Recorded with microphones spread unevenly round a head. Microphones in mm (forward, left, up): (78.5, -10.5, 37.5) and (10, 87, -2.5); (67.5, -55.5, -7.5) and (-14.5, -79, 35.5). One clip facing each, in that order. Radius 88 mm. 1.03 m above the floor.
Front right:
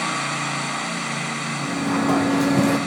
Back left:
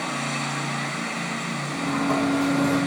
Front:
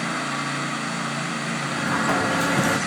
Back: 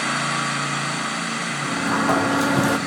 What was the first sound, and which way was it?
A sliding door, 80° right.